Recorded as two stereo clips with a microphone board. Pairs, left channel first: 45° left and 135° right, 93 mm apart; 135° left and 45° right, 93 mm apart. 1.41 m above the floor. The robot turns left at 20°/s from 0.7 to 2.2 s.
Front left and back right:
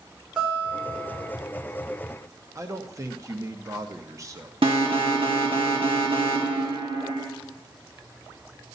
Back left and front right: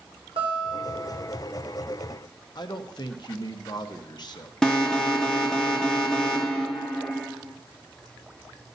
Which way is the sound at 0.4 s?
55° right.